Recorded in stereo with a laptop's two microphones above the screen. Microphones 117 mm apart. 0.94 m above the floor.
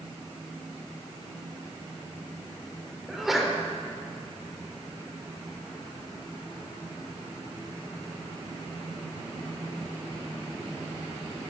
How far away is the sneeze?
About 4 m.